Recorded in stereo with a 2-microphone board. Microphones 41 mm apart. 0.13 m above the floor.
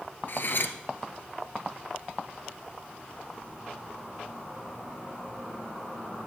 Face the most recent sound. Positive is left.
turn(degrees=60)  # may be behind; listen again after turning